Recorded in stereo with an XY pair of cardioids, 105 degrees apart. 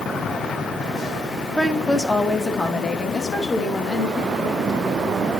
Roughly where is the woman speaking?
Ahead.